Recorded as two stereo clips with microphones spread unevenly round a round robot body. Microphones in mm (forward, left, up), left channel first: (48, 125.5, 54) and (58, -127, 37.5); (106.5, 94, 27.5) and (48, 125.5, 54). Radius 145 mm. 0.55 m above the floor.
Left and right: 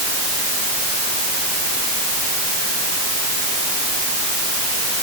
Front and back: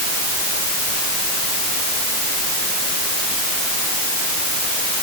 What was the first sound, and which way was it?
Only background noise.